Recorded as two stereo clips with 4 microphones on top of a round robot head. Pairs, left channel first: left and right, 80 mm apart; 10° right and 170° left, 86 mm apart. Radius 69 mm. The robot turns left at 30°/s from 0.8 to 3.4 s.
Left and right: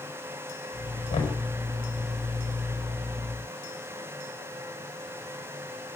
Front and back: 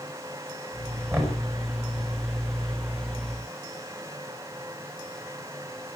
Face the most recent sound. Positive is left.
turn(degrees=35)